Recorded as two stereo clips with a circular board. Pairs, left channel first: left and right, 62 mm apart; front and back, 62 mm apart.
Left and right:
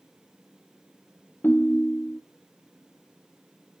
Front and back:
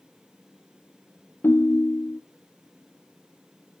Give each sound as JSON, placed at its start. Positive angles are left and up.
{"t": 1.4, "sound": "a ringtone", "azimuth_deg": 40, "distance_m": 0.8}